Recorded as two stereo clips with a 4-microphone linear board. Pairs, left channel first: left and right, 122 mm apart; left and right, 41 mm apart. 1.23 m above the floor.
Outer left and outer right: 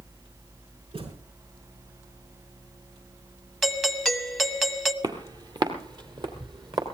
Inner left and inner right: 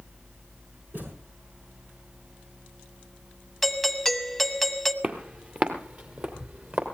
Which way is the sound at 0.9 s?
50° right (ahead or behind).